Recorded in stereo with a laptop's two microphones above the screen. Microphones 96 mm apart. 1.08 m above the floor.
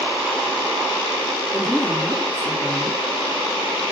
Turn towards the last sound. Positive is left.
turn(degrees=0)  # may be behind; listen again after turning